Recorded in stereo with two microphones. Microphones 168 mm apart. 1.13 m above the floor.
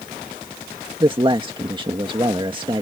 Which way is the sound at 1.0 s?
30° right (ahead or behind).